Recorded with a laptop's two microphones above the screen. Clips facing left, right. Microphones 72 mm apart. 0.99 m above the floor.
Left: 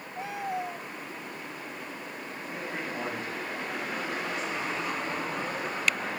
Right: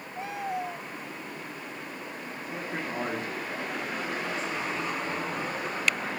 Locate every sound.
2.5 s a man speaking: 30° right (ahead or behind), 2.5 m